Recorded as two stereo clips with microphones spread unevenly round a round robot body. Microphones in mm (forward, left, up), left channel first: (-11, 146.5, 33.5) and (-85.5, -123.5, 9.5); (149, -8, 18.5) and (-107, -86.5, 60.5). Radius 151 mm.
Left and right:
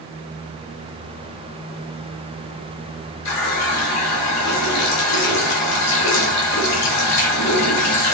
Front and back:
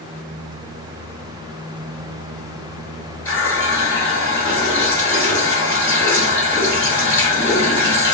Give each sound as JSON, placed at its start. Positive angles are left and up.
{"t": 3.2, "sound": "a running tap", "azimuth_deg": 100, "distance_m": 0.9}